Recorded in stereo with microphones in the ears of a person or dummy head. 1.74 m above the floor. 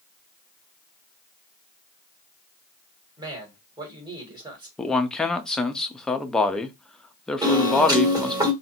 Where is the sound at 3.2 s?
15° right (ahead or behind), 1.5 m.